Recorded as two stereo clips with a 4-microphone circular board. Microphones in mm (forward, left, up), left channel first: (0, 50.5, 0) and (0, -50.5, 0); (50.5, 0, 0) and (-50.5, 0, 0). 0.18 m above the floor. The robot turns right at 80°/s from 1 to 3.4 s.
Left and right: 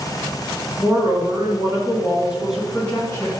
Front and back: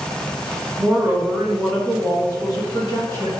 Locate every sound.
0.8 s a woman speaking: 130° right, 1.3 m; by 3.3 s 55° left, 1.3 m